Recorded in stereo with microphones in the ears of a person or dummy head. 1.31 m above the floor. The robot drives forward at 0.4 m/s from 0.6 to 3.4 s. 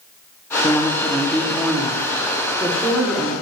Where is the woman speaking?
15° left (ahead or behind), 0.6 m; by 3.3 s 5° left (ahead or behind), 1.6 m.